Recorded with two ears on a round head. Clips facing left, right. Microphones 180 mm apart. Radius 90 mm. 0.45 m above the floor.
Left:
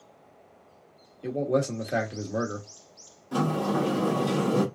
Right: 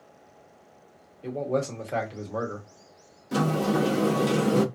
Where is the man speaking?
20° left (ahead or behind), 1.0 m.